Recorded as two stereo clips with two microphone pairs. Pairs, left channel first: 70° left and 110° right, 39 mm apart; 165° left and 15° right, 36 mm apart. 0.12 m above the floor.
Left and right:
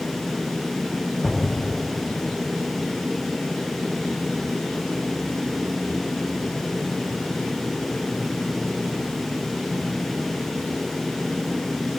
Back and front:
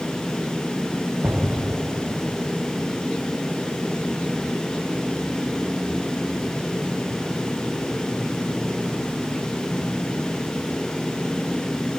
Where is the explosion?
5° right.